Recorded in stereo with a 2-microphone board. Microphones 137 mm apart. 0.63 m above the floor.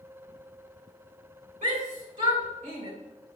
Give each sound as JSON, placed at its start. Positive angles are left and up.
{"t": 1.6, "sound": "a shout", "side_deg": -70, "distance_m": 2.5}